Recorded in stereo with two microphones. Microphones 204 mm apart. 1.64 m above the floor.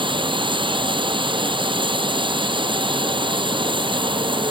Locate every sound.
0.0 s running water: 25° right (ahead or behind)